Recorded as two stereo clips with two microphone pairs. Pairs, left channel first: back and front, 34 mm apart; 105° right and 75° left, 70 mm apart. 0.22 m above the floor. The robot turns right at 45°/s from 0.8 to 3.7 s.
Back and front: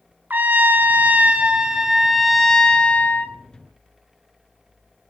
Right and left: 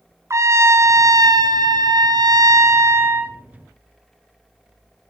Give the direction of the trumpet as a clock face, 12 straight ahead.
11 o'clock.